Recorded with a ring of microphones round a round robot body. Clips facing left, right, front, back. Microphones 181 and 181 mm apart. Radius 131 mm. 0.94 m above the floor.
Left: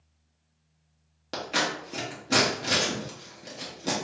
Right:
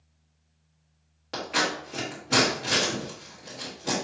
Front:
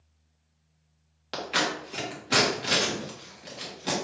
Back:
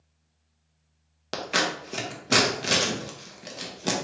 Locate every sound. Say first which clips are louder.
1.3 s scissors: right 1 dB, back 1 dB; 145° left, 1.0 m